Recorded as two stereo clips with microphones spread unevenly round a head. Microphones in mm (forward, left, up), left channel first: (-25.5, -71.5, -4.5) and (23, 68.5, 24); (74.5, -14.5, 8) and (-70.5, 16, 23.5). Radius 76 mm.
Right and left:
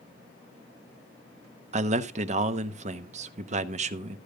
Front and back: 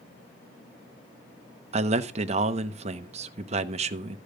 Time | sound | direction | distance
1.7 | a man speaking | 120° left | 1.0 m